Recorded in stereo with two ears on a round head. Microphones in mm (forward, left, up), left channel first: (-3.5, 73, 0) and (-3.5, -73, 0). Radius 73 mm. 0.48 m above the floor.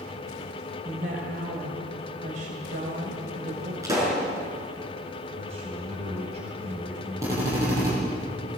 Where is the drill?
20° right (ahead or behind), 9.5 m.